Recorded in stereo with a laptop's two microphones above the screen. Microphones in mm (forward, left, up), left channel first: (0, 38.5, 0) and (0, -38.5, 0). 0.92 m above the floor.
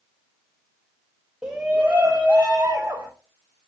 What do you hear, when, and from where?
1.4 s a shout: 10° right (ahead or behind), 1.3 m; by 3.1 s 35° right (ahead or behind), 3.5 m